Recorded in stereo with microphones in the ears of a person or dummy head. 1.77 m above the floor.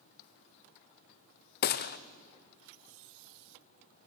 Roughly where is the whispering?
I don't hear whispering.